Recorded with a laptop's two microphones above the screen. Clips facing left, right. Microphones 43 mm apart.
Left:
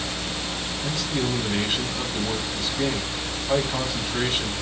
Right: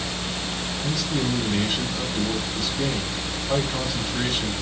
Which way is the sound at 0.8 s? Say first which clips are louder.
Right 1 dB; 30° left (ahead or behind).